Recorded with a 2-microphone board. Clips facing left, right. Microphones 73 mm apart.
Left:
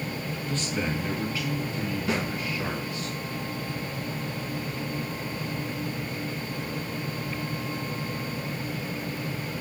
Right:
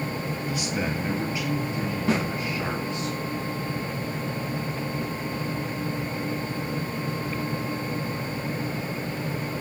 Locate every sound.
0.5 s a man speaking: 10° right (ahead or behind), 2.5 m; by 3.1 s 25° right (ahead or behind), 4.5 m
2.1 s a snare drum: 35° right (ahead or behind), 5.5 m